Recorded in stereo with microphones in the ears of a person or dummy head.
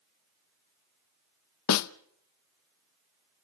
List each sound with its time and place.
1.7 s a snare drum: 90° left, 0.6 m